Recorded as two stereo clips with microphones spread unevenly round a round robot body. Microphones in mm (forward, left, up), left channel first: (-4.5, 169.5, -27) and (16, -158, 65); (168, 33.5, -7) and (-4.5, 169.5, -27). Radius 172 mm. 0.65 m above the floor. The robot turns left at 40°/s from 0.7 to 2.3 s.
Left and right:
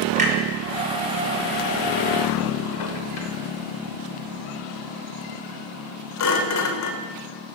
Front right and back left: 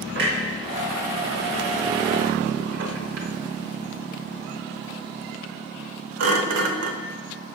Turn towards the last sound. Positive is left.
turn(degrees=140)